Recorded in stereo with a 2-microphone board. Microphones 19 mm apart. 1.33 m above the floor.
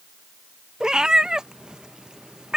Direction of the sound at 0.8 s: 35° right (ahead or behind).